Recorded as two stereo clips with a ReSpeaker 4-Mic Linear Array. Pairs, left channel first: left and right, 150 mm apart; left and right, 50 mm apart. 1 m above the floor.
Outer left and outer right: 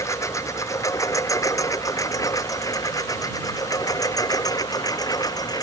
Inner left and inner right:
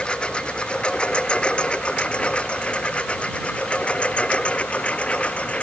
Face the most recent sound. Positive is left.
turn(degrees=25)  # may be behind; listen again after turning